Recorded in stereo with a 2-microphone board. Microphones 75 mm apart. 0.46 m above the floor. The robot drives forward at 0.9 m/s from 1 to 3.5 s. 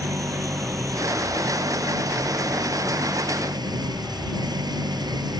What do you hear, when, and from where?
0.0 s an engine running: 45° right (ahead or behind); by 5.4 s 60° right (ahead or behind)